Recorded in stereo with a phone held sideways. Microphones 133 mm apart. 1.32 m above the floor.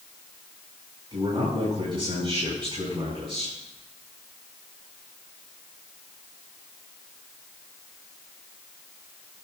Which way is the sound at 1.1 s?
45° right (ahead or behind).